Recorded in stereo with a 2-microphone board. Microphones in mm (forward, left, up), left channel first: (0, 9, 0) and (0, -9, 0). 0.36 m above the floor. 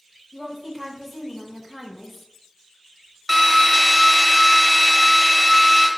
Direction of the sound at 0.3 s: 15° right (ahead or behind).